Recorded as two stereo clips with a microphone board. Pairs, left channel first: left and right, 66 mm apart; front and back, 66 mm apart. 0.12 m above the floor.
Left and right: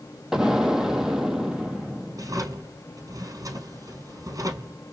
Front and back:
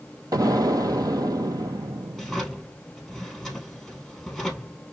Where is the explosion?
170° right, 0.5 m.